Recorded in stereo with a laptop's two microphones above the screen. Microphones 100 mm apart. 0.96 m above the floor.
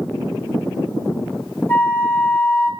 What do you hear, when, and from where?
1.7 s a flute: 20° left (ahead or behind), 1.1 m